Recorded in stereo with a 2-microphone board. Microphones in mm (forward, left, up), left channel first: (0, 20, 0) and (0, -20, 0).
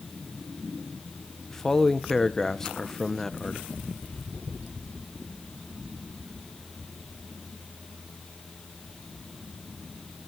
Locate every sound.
1.5 s a man speaking: 15° left (ahead or behind), 0.9 m